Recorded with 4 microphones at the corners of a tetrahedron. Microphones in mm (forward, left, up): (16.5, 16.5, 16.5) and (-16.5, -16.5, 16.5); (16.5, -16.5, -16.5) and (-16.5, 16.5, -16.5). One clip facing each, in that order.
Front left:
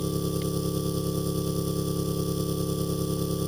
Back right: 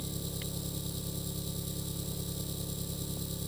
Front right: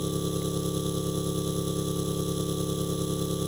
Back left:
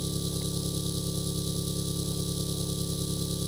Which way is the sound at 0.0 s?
10° left.